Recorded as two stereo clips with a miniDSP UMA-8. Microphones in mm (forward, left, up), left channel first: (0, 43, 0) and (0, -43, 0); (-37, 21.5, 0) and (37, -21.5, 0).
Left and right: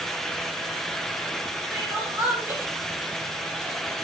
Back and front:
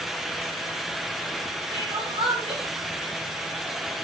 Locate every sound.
1.7 s crying: 25° right, 7 m